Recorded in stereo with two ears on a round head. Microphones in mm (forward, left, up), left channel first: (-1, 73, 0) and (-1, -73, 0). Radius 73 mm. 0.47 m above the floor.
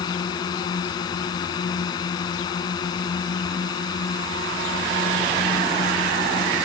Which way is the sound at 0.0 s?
25° left (ahead or behind).